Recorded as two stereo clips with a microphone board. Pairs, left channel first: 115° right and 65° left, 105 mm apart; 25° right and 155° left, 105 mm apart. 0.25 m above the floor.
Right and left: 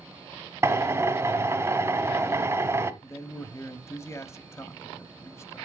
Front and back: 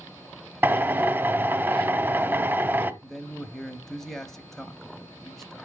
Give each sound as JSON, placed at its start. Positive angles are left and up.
{"t": 0.6, "sound": "a drill", "azimuth_deg": 105, "distance_m": 0.8}
{"t": 3.0, "sound": "a man speaking", "azimuth_deg": -105, "distance_m": 1.0}